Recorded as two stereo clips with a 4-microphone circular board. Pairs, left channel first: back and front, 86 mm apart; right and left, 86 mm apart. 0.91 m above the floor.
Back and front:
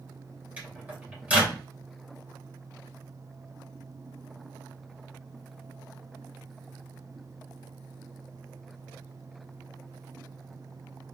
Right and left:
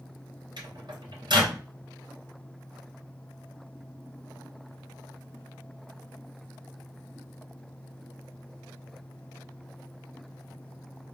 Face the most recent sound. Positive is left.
turn(degrees=70)